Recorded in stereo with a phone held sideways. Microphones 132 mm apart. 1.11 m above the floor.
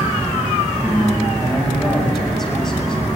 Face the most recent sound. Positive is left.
turn(degrees=5)  # may be behind; listen again after turning